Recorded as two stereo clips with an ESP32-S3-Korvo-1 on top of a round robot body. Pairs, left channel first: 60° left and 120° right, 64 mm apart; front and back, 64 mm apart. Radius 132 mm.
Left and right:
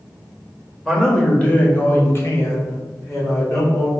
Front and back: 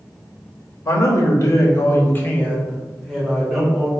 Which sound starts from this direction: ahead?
A man speaking, at 0.8 s.